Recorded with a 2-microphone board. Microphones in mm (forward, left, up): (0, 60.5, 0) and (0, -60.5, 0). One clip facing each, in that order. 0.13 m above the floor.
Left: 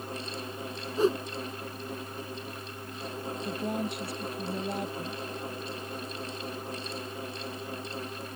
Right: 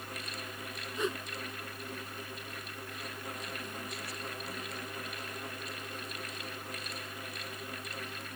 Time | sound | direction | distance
1.0 | a whoosh | 35° left (ahead or behind) | ?
3.4 | a woman speaking | 70° left (ahead or behind) | ?